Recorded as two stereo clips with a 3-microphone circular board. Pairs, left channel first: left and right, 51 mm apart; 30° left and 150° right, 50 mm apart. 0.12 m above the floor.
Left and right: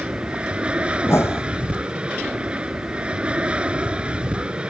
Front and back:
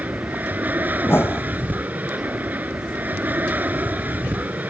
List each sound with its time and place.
0.0 s an aircraft: 140° right
1.0 s a whoosh: 65° left